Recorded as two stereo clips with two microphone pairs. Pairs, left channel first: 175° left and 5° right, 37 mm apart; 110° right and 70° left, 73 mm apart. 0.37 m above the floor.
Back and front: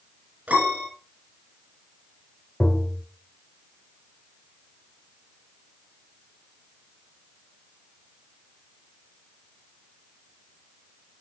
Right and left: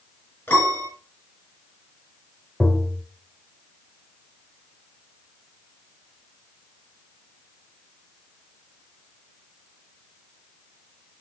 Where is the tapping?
175° left, 1.1 m.